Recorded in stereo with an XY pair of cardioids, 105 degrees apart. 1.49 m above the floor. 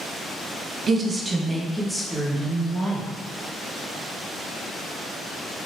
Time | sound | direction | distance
0.9 | a woman speaking | 40° right | 0.6 m